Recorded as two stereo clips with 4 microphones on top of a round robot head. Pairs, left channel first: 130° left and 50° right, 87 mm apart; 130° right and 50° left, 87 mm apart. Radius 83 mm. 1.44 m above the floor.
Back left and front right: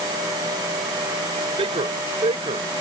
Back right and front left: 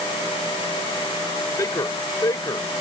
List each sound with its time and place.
1.6 s a man speaking: 75° right